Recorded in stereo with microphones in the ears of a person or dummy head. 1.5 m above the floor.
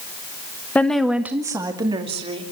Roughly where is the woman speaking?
Centre.